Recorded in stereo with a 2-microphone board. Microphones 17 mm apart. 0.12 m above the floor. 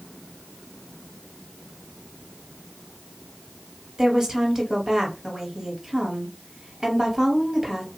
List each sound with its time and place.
4.0 s a woman speaking: 25° right (ahead or behind), 2.0 m